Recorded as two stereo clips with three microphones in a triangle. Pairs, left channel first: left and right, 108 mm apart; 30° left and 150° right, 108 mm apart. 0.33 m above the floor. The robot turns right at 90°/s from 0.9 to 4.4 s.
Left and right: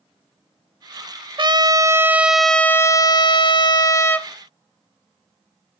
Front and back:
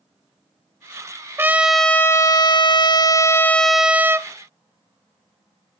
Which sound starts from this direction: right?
A trumpet, at 1.4 s.